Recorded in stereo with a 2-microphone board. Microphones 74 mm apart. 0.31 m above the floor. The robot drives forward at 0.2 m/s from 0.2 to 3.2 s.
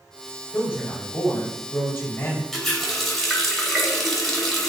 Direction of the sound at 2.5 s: 5° left (ahead or behind).